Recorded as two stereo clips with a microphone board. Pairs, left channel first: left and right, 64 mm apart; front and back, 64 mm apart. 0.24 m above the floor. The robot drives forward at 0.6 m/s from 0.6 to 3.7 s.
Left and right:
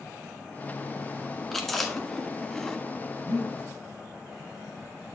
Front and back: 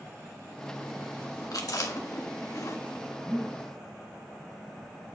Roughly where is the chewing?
Ahead.